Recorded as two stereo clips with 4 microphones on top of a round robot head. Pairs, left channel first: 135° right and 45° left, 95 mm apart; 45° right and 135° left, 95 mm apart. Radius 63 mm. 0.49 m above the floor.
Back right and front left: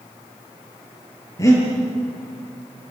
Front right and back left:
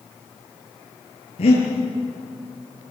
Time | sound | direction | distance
1.4 | breathing | 75° right | 7.5 m